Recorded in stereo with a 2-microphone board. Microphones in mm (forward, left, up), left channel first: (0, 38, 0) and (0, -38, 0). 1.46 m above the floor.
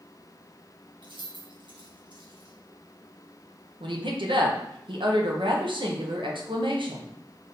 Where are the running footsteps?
I don't hear running footsteps.